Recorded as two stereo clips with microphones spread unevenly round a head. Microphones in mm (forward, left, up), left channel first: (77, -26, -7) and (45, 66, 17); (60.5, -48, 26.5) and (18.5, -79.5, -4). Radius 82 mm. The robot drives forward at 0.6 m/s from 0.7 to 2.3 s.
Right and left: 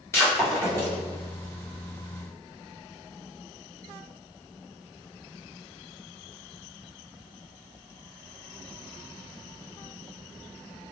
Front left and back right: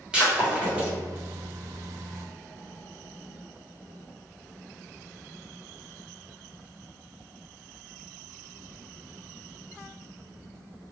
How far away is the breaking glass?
About 1.4 m.